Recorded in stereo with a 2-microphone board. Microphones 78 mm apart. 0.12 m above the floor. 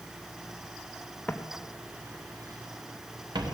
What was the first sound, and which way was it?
Footsteps, 20° left (ahead or behind).